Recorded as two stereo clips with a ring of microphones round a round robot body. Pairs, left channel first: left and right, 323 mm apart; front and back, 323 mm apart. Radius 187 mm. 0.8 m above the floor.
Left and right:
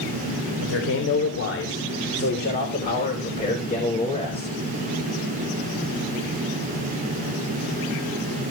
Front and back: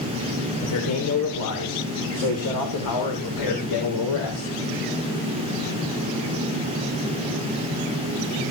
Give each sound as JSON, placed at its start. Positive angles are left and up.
{"t": 0.6, "sound": "a man speaking", "azimuth_deg": 45, "distance_m": 3.5}